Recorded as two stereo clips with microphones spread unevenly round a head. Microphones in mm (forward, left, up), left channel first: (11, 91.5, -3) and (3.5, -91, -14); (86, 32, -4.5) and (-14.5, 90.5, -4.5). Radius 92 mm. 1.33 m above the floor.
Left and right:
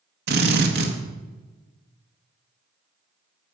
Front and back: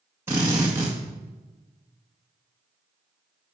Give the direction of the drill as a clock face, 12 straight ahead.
4 o'clock.